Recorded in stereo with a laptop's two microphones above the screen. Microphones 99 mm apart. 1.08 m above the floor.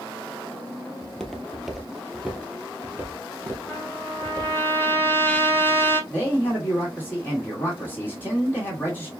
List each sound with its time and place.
1.0 s footsteps: 5° left (ahead or behind), 1.2 m; by 4.6 s 25° right (ahead or behind), 1.7 m
3.7 s a trumpet: 20° left (ahead or behind), 1.4 m
6.1 s a man speaking: 20° left (ahead or behind), 2 m